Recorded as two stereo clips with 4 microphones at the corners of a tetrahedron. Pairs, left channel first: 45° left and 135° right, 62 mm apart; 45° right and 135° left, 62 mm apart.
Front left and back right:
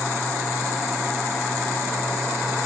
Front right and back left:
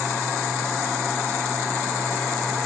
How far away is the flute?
No flute in this recording.